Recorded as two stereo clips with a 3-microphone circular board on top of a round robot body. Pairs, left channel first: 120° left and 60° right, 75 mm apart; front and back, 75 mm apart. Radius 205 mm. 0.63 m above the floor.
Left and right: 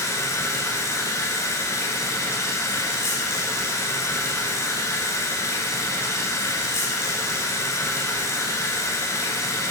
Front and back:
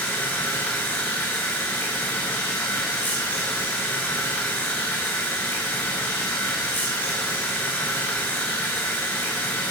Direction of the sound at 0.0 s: 70° left.